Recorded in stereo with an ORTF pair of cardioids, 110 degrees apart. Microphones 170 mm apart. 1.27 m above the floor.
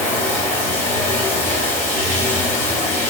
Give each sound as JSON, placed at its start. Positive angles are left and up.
{"t": 0.0, "sound": "running water", "azimuth_deg": 45, "distance_m": 3.0}